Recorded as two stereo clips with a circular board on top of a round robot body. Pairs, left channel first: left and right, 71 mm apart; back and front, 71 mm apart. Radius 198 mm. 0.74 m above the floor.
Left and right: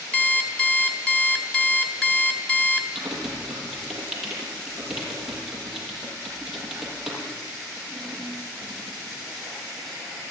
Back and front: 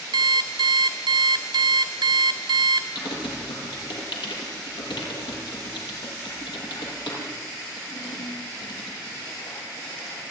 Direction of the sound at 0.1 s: 15° left.